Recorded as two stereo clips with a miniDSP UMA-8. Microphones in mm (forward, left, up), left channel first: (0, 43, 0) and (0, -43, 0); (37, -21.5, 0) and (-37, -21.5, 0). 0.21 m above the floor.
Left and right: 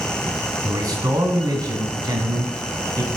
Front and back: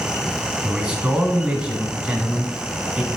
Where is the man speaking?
105° right, 1.8 m.